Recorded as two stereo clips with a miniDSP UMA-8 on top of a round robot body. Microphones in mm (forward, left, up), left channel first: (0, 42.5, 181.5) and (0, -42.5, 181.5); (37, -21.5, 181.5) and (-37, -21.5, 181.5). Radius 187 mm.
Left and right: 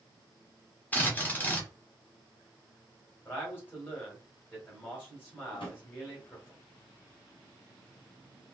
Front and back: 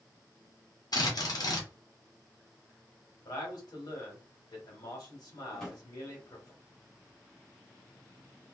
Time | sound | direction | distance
0.9 | a drill | 20° left | 1.4 m
3.2 | a man speaking | 25° left | 1.8 m
5.5 | a drawer | 85° left | 1.3 m